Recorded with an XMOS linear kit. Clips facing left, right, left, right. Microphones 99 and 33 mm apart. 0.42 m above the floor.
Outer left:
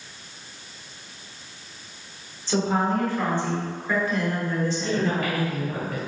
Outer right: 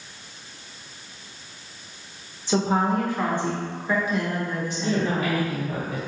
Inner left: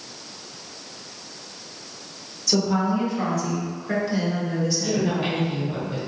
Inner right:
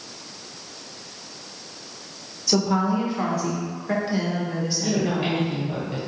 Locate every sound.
2.5 s a woman speaking: 15° right (ahead or behind), 0.9 m
4.8 s a woman speaking: 20° right (ahead or behind), 1.5 m